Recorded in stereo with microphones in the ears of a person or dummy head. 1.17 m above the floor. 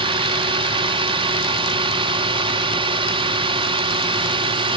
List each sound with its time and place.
0.0 s a drone: 25° right (ahead or behind)